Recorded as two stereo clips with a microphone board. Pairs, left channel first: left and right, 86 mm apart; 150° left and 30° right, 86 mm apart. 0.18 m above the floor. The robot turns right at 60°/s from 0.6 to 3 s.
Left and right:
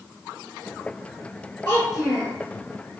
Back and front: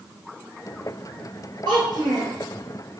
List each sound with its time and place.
1.6 s a child speaking: 60° right, 2.0 m; by 2.3 s 20° right, 2.0 m